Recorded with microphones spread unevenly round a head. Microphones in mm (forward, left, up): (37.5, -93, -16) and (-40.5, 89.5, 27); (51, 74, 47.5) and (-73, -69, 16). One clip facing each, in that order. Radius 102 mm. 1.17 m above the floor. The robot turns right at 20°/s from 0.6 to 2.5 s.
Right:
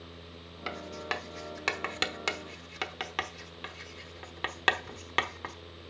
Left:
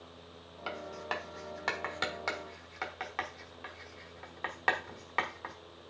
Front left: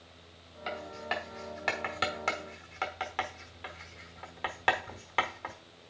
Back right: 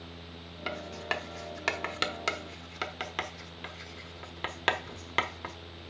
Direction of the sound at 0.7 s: 130° right.